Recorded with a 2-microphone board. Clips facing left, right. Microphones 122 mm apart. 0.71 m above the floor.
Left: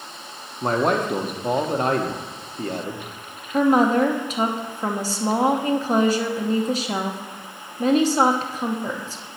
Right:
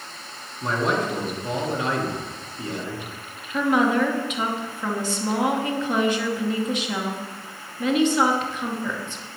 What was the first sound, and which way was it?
A man speaking, 50° left (ahead or behind).